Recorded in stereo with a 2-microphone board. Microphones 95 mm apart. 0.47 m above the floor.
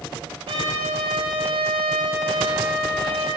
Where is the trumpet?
80° right, 10 m.